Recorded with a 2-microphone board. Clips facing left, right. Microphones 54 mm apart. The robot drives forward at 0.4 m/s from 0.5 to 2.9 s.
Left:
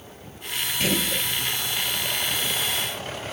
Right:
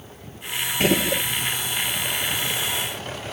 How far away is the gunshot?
About 0.8 m.